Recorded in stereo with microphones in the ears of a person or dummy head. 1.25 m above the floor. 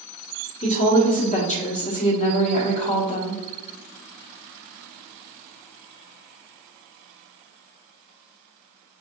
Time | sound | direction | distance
0.6 | a woman speaking | 45° left (ahead or behind) | 1.1 m